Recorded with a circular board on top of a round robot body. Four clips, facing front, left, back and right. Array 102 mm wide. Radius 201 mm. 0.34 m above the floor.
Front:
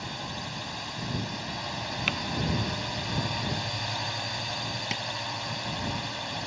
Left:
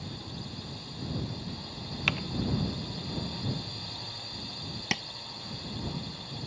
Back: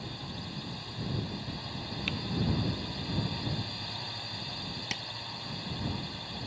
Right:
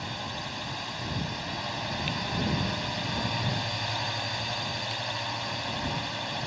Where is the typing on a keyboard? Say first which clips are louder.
Right 1 dB, front 4 dB; 55° left.